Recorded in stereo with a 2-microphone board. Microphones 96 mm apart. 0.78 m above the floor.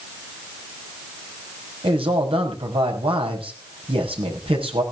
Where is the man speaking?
75° right (ahead or behind), 5.5 m.